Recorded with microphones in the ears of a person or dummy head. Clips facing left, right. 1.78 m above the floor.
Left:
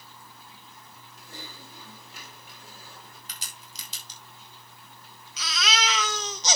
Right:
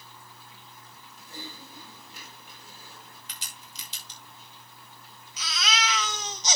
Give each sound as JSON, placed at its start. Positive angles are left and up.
{"t": 1.2, "sound": "typing on a keyboard", "side_deg": 55, "distance_m": 6.5}
{"t": 3.3, "sound": "a crack", "side_deg": 35, "distance_m": 6.0}
{"t": 5.4, "sound": "a baby crying", "side_deg": 55, "distance_m": 1.4}